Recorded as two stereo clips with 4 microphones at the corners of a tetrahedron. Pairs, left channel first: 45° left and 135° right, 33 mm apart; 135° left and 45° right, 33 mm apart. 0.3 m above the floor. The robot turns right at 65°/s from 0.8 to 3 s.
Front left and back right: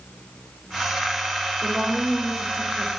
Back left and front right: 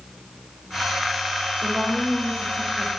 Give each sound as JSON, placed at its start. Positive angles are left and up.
{"t": 1.6, "sound": "a woman speaking", "azimuth_deg": -70, "distance_m": 0.9}